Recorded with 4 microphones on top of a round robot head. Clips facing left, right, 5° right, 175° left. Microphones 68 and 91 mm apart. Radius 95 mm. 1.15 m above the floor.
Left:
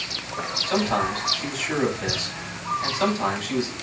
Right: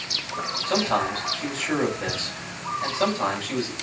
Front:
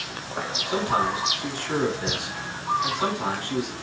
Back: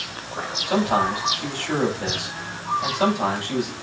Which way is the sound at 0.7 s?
145° right.